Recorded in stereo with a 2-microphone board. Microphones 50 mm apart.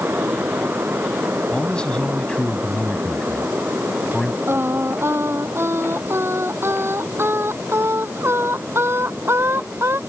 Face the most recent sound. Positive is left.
turn(degrees=-55)  # may be behind; listen again after turning